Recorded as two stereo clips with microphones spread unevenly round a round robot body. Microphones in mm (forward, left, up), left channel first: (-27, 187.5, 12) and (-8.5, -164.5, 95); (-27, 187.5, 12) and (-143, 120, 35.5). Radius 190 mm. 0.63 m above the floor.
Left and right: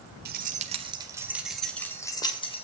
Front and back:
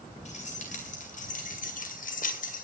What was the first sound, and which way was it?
Keys jangling, 20° right.